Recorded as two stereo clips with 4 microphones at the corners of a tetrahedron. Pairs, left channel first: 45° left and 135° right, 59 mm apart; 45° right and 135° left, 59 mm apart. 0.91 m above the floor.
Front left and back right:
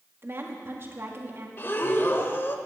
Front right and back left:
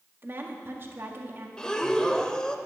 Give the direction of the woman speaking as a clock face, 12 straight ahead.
6 o'clock.